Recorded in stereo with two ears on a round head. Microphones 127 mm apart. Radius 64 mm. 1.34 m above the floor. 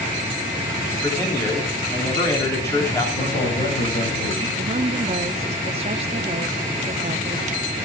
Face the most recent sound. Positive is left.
turn(degrees=-45)  # may be behind; listen again after turning